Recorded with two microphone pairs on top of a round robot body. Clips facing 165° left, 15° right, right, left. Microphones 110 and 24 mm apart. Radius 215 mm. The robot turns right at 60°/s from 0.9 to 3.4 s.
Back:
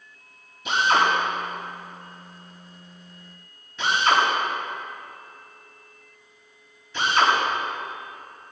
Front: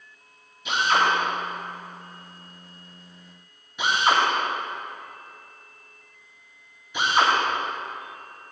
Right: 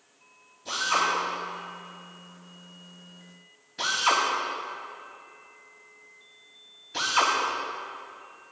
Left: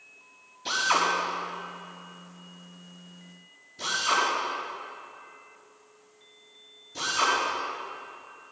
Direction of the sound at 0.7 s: 120° left.